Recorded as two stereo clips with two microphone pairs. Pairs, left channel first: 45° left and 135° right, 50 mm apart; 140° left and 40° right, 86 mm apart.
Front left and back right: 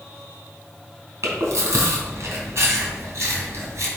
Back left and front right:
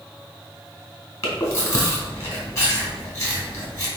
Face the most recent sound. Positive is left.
turn(degrees=-165)